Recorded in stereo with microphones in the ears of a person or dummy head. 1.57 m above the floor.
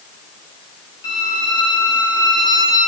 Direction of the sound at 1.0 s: 80° left.